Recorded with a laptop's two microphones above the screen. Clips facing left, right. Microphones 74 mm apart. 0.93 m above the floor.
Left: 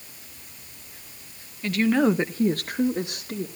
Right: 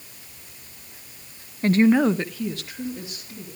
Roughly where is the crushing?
No crushing in this recording.